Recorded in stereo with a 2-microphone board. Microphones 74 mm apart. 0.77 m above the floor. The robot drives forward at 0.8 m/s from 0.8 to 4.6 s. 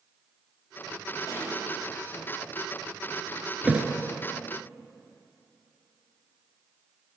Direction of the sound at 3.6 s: 20° right (ahead or behind).